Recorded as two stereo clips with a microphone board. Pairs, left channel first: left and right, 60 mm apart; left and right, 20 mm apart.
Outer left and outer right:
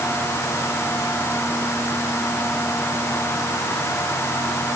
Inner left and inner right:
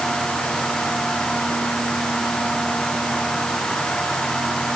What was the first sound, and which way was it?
Only background noise.